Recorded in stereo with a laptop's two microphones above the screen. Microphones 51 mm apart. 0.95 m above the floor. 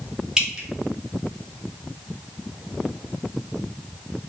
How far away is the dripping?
About 1.2 m.